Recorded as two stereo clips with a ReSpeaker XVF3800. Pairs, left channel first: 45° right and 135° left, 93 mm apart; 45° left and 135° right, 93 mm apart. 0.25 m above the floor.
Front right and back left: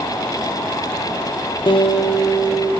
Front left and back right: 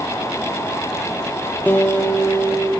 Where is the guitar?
25° right, 1.1 m.